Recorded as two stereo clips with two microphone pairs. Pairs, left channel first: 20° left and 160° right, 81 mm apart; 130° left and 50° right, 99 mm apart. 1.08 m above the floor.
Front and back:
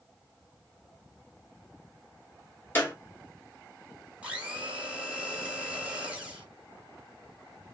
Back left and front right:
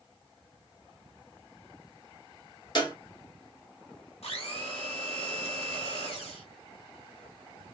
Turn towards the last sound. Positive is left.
turn(degrees=125)